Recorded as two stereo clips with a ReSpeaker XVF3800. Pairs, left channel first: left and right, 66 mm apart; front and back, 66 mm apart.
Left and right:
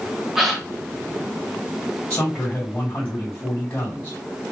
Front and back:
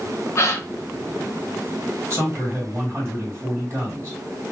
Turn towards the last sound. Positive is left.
turn(degrees=140)